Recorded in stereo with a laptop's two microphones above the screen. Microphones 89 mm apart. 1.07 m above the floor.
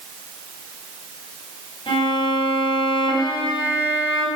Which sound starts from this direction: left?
A violin, at 1.9 s.